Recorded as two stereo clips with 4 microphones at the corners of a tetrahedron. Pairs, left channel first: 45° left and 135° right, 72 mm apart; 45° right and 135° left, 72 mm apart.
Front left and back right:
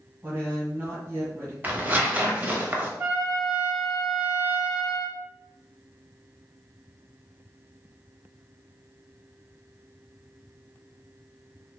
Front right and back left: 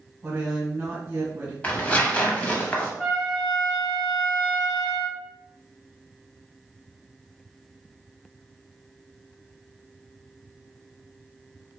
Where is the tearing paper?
90° right, 0.6 m.